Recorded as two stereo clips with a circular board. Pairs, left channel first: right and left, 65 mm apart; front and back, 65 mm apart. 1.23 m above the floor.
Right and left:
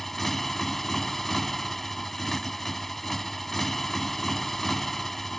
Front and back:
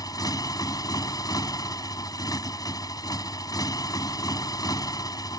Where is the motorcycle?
5° right.